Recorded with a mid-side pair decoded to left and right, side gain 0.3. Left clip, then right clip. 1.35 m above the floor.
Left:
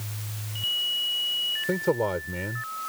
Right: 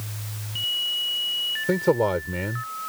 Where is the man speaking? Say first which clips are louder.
Right 4 dB; 35° right.